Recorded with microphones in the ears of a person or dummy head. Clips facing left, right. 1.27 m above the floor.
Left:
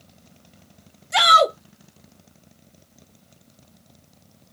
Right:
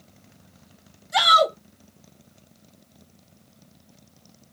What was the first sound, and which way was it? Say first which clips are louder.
A shout: left 2 dB; 40° left (ahead or behind).